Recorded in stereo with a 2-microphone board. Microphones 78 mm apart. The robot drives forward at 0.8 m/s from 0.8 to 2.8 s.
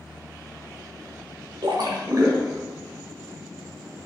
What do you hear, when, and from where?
1.6 s a splash: 75° right (ahead or behind), 0.7 m; by 2.6 s 35° right (ahead or behind), 1.2 m